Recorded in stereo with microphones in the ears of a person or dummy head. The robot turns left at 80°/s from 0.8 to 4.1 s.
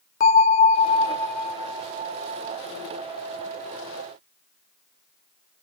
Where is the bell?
50° left, 1.3 m; by 2.6 s 95° right, 1.3 m.